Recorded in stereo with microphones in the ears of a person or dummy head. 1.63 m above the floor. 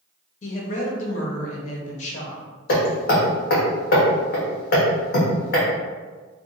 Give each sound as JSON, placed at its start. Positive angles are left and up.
{"t": 0.4, "sound": "a woman speaking", "side_deg": 40, "distance_m": 1.1}
{"t": 2.7, "sound": "hammering", "side_deg": 55, "distance_m": 1.1}